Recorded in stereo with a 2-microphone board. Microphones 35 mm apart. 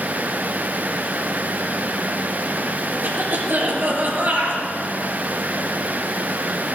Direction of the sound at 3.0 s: 70° right (ahead or behind).